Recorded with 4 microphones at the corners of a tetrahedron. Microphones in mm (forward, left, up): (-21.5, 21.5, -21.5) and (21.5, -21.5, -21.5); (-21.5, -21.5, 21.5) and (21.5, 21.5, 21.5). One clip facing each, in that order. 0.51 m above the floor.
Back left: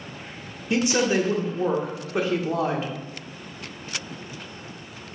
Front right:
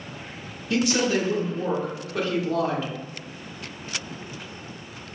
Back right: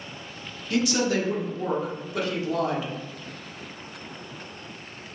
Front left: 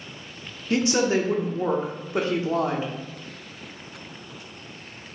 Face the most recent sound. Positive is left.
turn(degrees=85)